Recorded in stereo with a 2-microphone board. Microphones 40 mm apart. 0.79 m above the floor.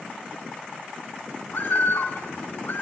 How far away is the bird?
About 7.5 m.